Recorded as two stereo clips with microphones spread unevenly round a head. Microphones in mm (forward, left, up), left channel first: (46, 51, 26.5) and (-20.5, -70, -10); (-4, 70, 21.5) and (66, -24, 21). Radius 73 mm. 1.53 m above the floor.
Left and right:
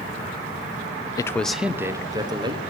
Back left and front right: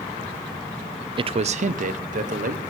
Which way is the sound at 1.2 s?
10° right.